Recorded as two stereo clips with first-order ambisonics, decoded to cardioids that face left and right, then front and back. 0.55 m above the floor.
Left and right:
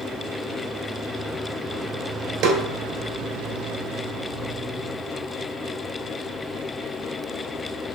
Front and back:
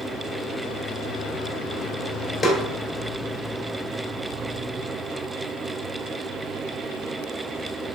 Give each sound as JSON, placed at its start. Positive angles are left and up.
{"t": 2.4, "sound": "a snare drum", "azimuth_deg": -80, "distance_m": 1.0}